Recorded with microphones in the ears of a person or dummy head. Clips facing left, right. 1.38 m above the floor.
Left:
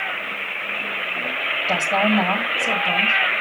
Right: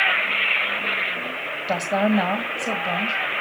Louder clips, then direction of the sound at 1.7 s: Even; 10° right (ahead or behind).